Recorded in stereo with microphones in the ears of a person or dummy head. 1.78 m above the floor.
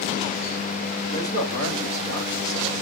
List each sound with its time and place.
1.1 s a man speaking: 40° right (ahead or behind), 6.5 m